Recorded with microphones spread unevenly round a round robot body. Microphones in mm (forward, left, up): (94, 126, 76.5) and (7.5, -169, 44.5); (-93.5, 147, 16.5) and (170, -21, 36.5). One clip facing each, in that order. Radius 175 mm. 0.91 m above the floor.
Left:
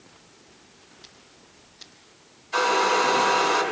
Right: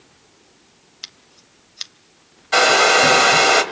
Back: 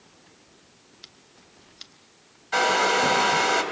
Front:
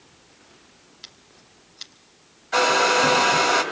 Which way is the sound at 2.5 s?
130° right.